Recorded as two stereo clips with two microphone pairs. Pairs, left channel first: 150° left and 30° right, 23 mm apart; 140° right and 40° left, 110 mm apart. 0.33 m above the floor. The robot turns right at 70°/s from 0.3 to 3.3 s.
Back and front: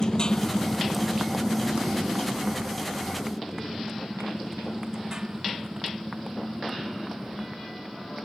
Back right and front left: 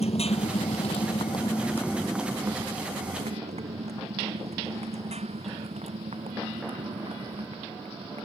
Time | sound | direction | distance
0.0 | a motorcycle | 155° right | ?